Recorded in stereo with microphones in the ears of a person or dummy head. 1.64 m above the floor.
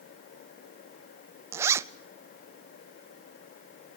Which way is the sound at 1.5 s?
20° right (ahead or behind).